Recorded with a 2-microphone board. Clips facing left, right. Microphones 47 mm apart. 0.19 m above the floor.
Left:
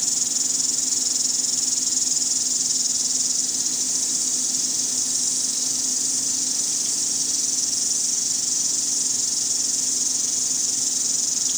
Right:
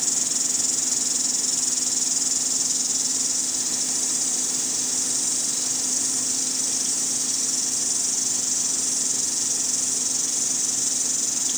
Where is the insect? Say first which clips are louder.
Even; 5° right (ahead or behind), 1.8 m.